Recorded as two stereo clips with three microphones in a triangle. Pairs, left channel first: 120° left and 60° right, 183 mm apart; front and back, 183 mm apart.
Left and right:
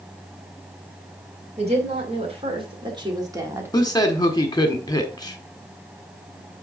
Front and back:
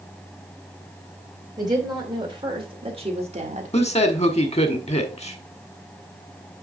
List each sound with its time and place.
1.6 s a woman speaking: 115° right, 2.5 m; by 3.7 s 135° right, 1.4 m
3.7 s a man speaking: 55° left, 1.5 m